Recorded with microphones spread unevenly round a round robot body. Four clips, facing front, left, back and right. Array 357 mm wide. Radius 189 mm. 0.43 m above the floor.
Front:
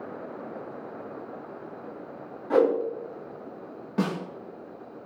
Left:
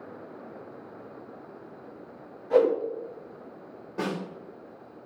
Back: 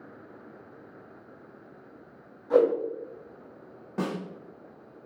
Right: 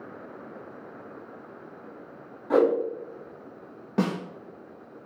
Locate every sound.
2.5 s a whoosh: 65° right, 3.5 m
4.0 s a snare drum: 75° right, 3.5 m